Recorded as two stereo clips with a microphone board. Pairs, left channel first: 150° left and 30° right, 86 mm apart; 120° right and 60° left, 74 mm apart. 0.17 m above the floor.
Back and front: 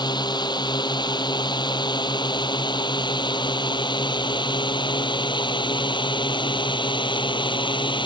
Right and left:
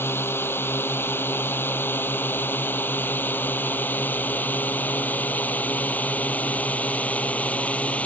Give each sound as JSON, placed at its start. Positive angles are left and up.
{"t": 0.0, "sound": "a drone", "azimuth_deg": 180}